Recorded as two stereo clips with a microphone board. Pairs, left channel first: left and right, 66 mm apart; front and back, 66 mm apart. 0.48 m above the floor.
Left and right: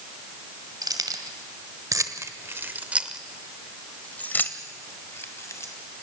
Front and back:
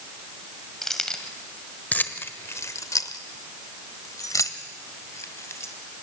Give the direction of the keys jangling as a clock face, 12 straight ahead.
3 o'clock.